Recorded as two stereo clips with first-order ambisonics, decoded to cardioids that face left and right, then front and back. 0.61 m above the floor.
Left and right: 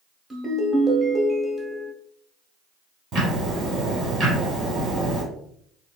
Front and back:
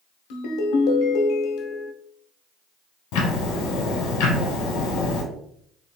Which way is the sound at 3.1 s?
25° right.